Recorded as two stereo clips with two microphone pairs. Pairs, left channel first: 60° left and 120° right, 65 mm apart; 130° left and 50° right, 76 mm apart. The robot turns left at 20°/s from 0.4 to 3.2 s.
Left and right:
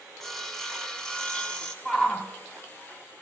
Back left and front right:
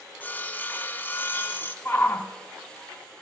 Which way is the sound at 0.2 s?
140° left.